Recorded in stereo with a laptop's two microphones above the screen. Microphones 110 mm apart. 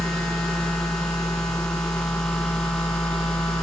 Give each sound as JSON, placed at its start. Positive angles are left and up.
{"t": 0.0, "sound": "a machine running", "side_deg": 5, "distance_m": 3.0}